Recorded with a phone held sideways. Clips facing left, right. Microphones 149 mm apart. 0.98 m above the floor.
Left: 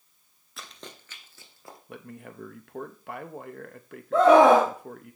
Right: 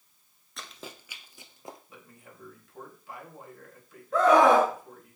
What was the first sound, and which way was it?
Running footsteps, 5° left (ahead or behind).